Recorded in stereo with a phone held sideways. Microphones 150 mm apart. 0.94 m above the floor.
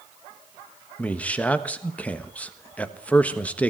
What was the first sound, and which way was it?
A man speaking, 10° left (ahead or behind).